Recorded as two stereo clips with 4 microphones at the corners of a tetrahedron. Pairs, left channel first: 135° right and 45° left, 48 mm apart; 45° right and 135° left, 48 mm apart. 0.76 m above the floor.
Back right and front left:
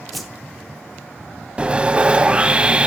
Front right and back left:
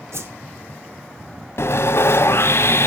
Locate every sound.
0.1 s a whoosh: 135° left, 2 m
1.6 s sawing: 20° right, 1.3 m